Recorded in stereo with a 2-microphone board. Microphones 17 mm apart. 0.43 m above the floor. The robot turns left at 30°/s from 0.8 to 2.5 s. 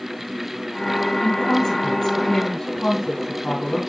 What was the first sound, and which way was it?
A woman speaking, 75° left.